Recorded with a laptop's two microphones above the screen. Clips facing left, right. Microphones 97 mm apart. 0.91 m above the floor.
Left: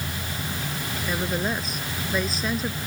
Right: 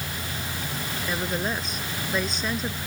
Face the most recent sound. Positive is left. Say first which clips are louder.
# left 2 dB
turn(degrees=0)  # may be behind; listen again after turning